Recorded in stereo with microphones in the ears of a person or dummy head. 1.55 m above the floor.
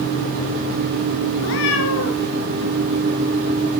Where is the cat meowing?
65° left (ahead or behind), 3.5 m.